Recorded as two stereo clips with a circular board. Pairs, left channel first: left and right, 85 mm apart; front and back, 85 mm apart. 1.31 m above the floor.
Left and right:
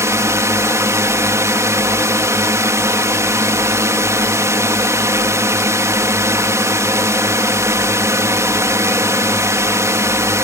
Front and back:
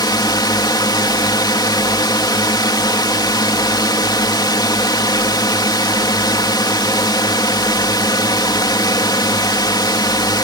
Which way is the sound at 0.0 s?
35° right.